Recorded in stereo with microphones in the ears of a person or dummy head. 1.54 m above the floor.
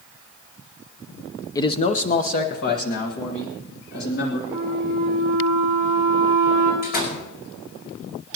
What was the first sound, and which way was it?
A man speaking, 20° left (ahead or behind).